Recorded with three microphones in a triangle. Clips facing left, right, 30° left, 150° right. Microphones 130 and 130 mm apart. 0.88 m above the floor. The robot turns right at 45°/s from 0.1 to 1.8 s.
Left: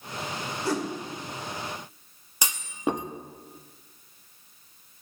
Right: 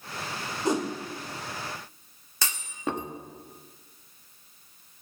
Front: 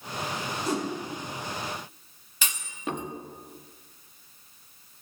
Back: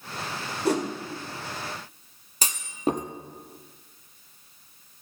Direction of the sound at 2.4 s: 165° left.